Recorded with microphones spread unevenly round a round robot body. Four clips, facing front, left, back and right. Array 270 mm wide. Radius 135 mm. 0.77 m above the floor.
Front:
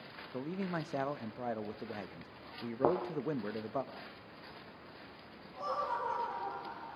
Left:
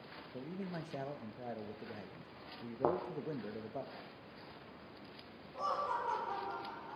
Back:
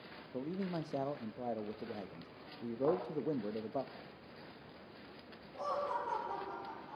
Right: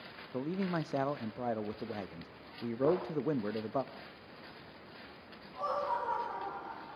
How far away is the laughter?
About 7.5 m.